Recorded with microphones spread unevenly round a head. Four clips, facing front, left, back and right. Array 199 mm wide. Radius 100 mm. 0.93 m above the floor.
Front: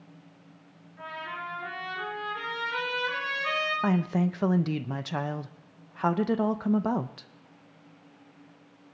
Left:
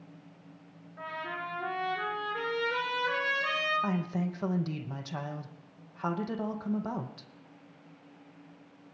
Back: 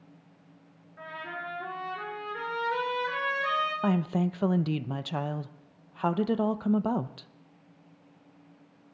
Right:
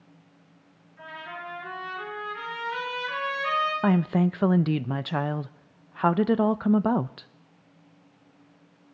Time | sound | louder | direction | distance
1.0 | a trumpet | left 1 dB, front 2 dB | 120° left | 6 m
3.8 | a woman speaking | right 9 dB, front 4 dB | 85° right | 0.5 m